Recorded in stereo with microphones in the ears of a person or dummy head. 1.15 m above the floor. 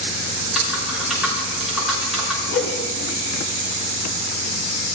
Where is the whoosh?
80° left, 3 m.